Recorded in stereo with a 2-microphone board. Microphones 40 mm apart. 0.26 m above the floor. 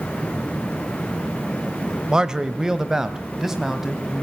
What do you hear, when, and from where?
2.1 s a man speaking: 15° right (ahead or behind), 0.9 m; by 4.2 s 5° right (ahead or behind), 1.7 m